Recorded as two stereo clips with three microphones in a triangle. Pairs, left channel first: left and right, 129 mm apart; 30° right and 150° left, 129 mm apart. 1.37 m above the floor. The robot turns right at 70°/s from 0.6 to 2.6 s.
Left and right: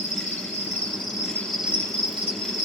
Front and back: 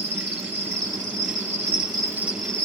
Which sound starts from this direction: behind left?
An insect, at 0.0 s.